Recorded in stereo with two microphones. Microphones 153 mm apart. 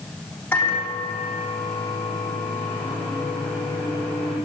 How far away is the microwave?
About 6.5 m.